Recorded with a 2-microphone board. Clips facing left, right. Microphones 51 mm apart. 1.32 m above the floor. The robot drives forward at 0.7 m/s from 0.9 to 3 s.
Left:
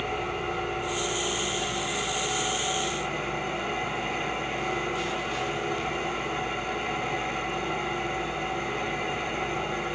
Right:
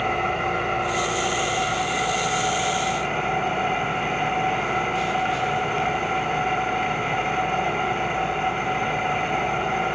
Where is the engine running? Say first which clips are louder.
Right 7 dB; 65° right (ahead or behind), 4.5 m; by 10.0 s 50° right (ahead or behind), 5 m.